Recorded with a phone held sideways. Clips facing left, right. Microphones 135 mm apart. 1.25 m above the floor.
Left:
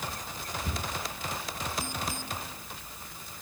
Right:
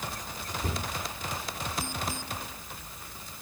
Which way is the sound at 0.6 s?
60° right (ahead or behind).